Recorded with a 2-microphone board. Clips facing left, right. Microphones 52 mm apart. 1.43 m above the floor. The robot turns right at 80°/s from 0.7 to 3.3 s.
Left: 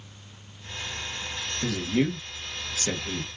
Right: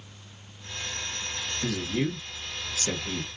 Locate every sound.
1.6 s a man speaking: 55° left (ahead or behind), 1.2 m; by 3.4 s 10° right (ahead or behind), 1.2 m